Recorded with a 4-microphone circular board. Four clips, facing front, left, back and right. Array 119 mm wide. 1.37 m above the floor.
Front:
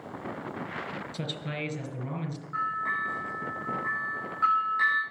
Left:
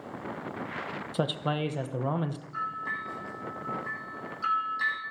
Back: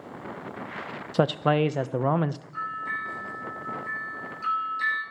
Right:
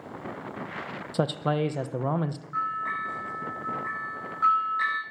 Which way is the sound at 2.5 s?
40° right.